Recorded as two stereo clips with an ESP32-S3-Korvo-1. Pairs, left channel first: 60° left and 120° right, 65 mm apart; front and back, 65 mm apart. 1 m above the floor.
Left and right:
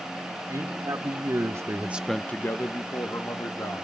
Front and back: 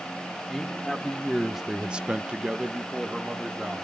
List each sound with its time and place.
0.5 s a man speaking: 90° right, 2.5 m; by 3.8 s 100° left, 3 m